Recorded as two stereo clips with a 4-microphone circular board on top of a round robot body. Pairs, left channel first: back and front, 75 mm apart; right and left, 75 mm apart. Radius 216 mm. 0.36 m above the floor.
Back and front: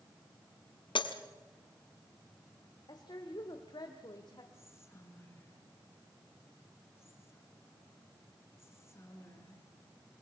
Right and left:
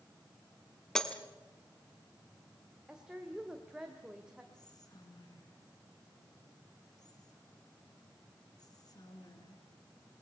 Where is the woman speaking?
170° left, 2.0 m.